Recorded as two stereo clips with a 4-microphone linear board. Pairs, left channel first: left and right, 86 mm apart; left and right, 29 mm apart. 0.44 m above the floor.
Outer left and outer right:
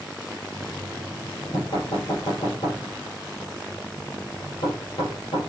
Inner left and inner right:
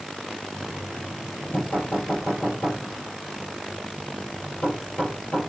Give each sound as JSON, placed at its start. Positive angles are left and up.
{"t": 0.5, "sound": "knocking", "side_deg": 65, "distance_m": 7.0}